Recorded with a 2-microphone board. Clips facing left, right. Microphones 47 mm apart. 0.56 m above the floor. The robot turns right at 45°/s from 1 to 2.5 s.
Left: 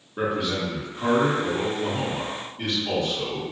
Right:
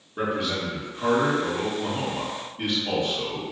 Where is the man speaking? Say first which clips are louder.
Left 1 dB; 5° left (ahead or behind), 1.3 m; by 3.4 s 15° right (ahead or behind), 1.3 m.